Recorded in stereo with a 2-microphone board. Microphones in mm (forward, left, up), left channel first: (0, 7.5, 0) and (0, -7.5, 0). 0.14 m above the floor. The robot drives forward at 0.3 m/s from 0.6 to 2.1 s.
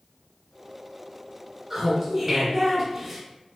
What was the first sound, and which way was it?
Laughter, 30° right (ahead or behind).